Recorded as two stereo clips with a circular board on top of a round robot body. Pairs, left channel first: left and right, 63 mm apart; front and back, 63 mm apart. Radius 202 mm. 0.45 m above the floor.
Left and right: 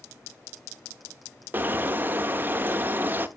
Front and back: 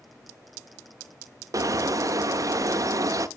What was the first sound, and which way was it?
A bird, 150° right.